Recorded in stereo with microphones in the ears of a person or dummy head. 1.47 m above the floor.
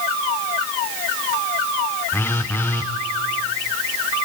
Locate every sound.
2.1 s a phone buzzing: 5° left (ahead or behind), 0.6 m